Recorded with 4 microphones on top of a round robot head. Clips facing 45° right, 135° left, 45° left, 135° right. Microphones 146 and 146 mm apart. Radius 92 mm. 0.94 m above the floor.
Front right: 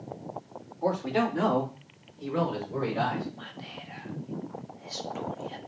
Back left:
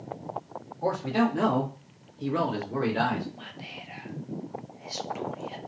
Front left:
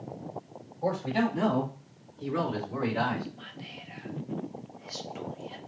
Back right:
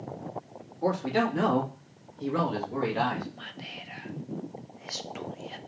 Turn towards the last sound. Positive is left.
turn(degrees=-150)